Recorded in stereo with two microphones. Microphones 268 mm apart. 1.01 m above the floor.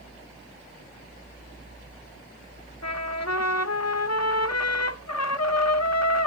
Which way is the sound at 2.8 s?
70° left (ahead or behind).